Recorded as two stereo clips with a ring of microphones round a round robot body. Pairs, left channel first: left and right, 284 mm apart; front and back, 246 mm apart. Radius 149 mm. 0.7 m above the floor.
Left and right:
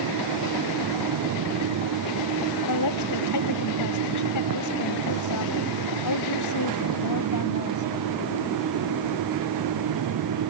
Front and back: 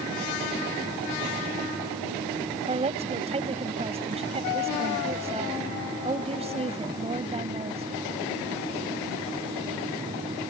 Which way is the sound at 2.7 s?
115° left.